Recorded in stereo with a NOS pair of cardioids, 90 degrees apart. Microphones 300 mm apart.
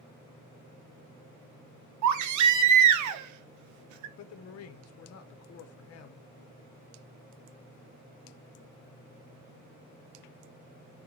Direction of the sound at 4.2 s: 55° left.